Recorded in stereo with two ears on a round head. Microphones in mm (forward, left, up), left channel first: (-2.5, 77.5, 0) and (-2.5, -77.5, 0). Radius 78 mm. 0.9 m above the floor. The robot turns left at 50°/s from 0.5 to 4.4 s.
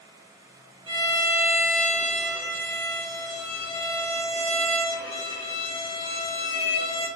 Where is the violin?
150° right, 1.5 m; by 7.1 s 35° left, 1.5 m.